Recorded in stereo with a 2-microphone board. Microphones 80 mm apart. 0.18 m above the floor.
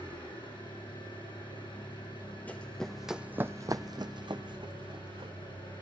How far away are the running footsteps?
About 0.8 m.